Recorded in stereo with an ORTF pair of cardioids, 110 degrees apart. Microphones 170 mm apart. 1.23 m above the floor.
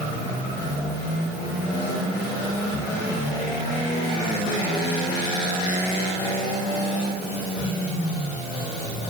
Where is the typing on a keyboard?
I don't hear typing on a keyboard.